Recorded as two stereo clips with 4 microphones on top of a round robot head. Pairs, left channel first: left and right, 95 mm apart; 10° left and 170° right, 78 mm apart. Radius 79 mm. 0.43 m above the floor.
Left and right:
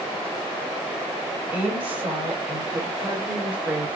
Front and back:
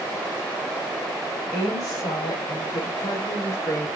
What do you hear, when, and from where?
1.5 s a woman speaking: 25° right, 3 m; by 3.9 s 15° right, 1.9 m